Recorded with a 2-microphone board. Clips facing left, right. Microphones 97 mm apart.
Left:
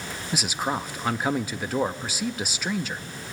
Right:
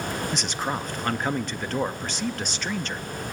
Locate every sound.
0.3 s a man speaking: 5° left (ahead or behind), 0.8 m